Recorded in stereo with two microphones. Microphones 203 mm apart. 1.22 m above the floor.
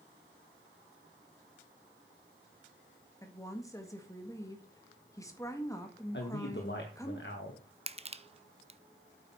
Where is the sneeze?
No sneeze in this recording.